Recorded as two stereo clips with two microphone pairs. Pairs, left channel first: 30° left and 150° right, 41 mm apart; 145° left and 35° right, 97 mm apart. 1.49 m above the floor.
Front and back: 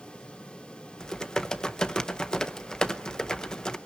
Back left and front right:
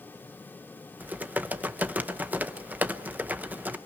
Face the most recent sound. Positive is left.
turn(degrees=-10)